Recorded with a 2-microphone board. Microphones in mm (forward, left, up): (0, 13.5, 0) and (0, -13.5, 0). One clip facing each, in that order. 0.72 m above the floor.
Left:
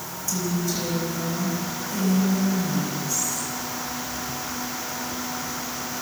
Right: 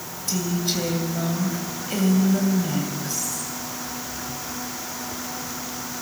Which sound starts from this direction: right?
A woman speaking, at 0.3 s.